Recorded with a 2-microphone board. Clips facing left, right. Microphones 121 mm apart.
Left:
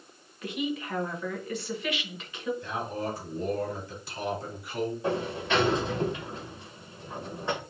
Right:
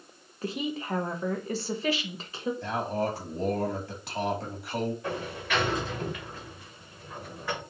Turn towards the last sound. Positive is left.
turn(degrees=25)  # may be behind; listen again after turning